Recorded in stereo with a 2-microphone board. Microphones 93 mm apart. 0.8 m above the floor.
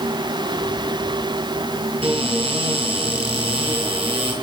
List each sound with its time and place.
2.0 s a cupboard door: 80° right, 7.5 m